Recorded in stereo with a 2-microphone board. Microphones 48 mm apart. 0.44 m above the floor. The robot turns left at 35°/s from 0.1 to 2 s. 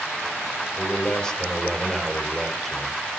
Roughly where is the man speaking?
Ahead left.